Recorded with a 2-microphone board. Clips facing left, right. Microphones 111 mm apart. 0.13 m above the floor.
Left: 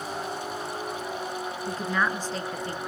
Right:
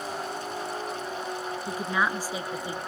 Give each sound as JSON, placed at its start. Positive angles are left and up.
{"t": 1.7, "sound": "a woman speaking", "side_deg": -10, "distance_m": 1.5}